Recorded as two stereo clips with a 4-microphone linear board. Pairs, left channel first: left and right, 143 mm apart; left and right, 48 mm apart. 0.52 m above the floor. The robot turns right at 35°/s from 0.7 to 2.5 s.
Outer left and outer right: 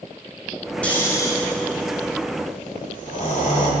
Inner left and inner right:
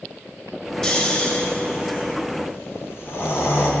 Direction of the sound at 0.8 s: 10° left (ahead or behind).